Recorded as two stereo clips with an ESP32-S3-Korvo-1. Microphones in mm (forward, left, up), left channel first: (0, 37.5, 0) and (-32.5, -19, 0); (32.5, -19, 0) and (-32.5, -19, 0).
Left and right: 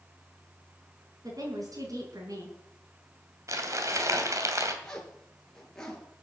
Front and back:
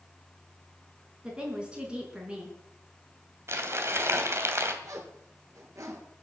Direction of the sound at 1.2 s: 105° right.